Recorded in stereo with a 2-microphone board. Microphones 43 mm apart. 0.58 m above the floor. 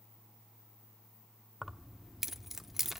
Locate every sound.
1.6 s keys jangling: 5° right (ahead or behind), 0.8 m